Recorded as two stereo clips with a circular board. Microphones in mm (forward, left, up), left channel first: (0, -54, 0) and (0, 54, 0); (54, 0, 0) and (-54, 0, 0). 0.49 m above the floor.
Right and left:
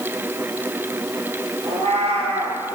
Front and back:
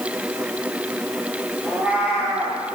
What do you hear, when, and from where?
1.6 s a cat meowing: 105° left, 3 m